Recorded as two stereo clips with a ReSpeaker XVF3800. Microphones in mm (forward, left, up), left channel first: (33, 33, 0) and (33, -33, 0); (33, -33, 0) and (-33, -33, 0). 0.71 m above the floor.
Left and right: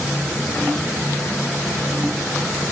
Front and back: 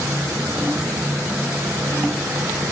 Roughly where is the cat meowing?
No cat meowing in this recording.